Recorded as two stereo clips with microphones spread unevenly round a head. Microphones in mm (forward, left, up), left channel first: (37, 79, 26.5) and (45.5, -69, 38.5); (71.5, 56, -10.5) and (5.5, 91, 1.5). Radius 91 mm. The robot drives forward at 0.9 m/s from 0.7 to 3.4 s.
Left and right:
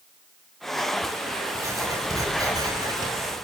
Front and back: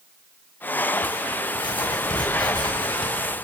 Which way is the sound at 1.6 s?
15° right.